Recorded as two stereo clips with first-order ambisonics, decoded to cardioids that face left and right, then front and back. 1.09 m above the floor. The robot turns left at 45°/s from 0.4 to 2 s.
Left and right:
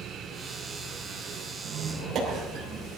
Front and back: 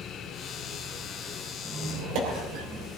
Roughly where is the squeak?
Behind right.